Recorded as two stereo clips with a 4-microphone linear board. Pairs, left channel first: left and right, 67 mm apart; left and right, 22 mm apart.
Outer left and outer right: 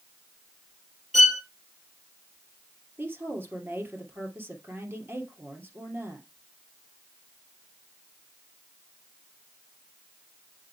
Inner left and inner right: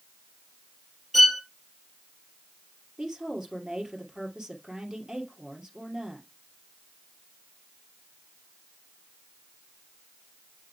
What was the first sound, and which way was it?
A violin, 5° right (ahead or behind).